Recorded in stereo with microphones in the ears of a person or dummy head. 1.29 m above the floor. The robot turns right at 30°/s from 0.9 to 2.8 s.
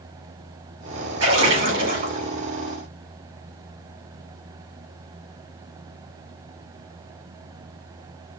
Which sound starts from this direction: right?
A splash, at 1.2 s.